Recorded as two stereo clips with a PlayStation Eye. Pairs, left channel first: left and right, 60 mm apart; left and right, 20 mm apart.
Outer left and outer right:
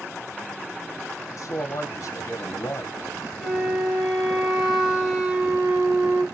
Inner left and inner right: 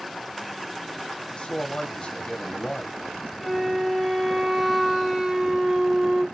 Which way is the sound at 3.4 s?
15° right (ahead or behind).